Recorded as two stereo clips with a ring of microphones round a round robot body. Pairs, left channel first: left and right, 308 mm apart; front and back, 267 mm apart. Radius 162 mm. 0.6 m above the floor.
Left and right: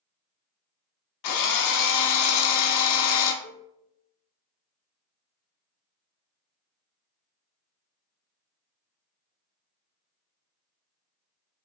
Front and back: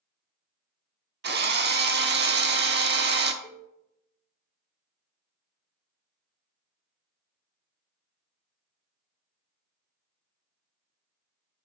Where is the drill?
125° left, 0.7 m.